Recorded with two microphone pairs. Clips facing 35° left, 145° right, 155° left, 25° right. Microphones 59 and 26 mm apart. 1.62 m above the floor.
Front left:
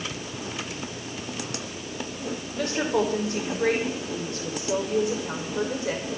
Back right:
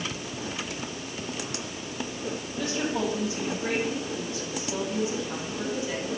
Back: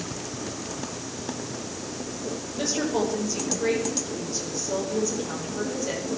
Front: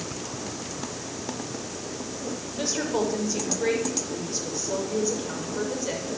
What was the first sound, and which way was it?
A woman speaking, 55° left.